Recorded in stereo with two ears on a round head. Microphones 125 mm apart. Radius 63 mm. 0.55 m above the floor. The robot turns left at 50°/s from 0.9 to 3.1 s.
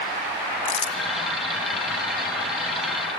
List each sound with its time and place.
0.7 s crumpling: 35° left (ahead or behind), 2 m; by 1.0 s 40° left (ahead or behind), 2 m